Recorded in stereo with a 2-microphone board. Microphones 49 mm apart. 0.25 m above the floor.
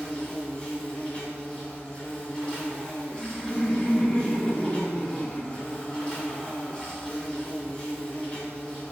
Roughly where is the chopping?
I don't hear chopping.